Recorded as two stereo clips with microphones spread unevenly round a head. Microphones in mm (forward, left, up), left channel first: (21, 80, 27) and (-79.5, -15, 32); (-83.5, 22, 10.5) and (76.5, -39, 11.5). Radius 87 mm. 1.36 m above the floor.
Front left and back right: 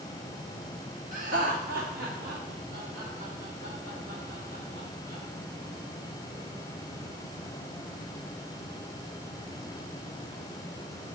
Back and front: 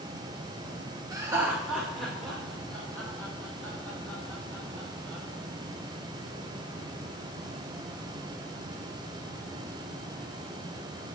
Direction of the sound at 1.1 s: 90° right.